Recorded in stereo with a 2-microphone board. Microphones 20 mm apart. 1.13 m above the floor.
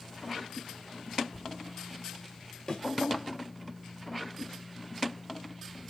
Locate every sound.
2.7 s a thud: 45° left (ahead or behind), 1.6 m